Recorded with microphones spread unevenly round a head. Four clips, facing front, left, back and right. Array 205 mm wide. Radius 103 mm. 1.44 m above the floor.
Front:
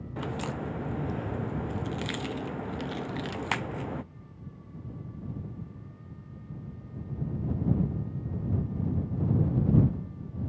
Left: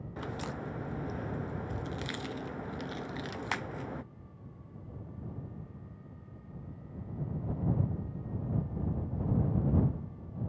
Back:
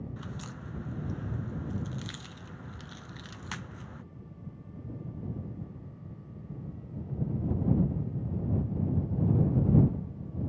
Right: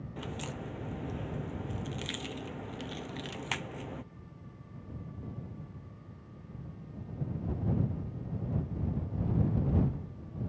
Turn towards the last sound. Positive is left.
turn(degrees=0)